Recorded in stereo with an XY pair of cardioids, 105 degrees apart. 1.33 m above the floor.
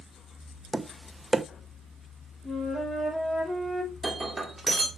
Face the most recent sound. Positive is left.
turn(degrees=-10)